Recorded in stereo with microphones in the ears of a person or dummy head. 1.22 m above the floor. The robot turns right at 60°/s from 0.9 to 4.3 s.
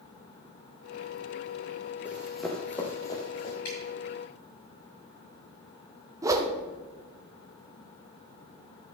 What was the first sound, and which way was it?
Running footsteps, centre (ahead or behind).